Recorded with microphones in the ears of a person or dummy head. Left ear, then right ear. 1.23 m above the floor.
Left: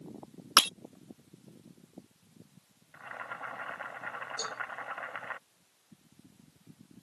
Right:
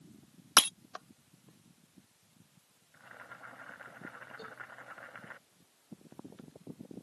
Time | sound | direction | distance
0.6 | breaking glass | 10° left (ahead or behind) | ?
2.9 | boiling | 35° left (ahead or behind) | ?
4.4 | a cowbell | 90° left | ?